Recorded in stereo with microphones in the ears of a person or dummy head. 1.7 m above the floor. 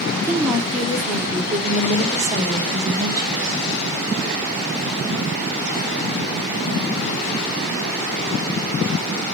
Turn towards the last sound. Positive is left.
turn(degrees=-20)  # may be behind; listen again after turning